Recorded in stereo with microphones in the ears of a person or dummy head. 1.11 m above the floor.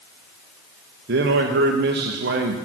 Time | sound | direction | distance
1.1 | a man speaking | 65° right (ahead or behind) | 1.1 m